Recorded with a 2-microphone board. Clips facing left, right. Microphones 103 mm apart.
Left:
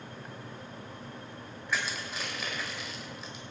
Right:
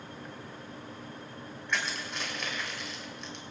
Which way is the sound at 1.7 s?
5° left (ahead or behind).